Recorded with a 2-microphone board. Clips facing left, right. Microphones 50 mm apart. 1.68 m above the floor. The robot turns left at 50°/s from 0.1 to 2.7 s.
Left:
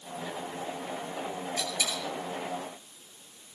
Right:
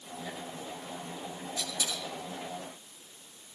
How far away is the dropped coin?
About 3.5 m.